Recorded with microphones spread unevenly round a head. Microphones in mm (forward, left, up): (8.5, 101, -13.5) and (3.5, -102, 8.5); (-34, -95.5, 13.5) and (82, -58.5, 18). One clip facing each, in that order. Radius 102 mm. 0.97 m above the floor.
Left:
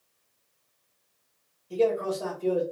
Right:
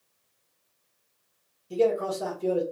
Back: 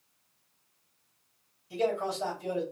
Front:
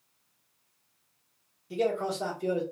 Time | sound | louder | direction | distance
1.7 | a man speaking | right 1 dB, front 1 dB | 10° right | 1.3 m